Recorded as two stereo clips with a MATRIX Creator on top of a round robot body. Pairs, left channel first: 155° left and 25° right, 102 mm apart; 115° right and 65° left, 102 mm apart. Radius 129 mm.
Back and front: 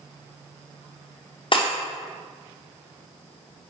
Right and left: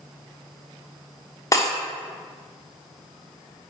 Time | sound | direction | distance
1.5 | breaking glass | 170° right | 1.2 m